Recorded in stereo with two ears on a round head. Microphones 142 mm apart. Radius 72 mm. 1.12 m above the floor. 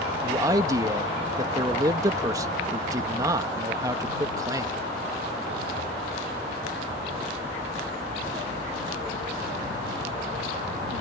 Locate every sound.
0.2 s a man speaking: 25° right (ahead or behind)